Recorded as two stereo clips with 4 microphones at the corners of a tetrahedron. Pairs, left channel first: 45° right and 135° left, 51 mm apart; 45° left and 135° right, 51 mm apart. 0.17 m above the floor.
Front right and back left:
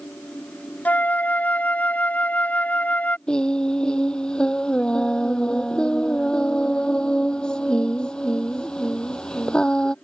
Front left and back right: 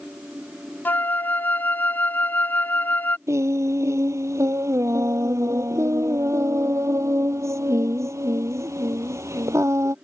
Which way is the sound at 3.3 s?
120° right.